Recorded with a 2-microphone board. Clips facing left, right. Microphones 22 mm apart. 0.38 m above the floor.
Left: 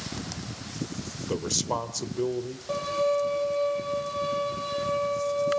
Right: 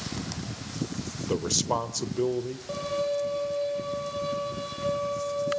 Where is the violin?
15° left (ahead or behind), 8 m.